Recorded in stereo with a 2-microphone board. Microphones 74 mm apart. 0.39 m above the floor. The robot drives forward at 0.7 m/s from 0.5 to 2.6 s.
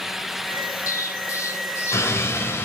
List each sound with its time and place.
0.9 s an explosion: 45° left (ahead or behind), 1.7 m; by 2.7 s 35° left (ahead or behind), 2 m